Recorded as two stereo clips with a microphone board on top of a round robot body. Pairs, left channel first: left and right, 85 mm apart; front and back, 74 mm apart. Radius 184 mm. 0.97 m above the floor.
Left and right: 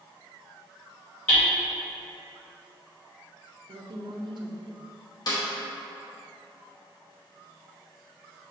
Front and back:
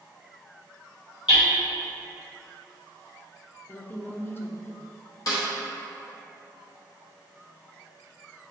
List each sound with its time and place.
1.3 s hammering: 10° left, 1.8 m
3.7 s a woman speaking: 60° right, 0.7 m
5.3 s a snare drum: 45° left, 0.8 m